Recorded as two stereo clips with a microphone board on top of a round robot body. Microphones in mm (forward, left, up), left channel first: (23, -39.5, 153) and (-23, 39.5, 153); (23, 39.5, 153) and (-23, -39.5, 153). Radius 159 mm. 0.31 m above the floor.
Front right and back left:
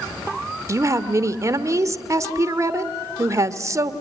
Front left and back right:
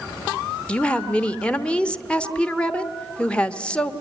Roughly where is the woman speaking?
Behind left.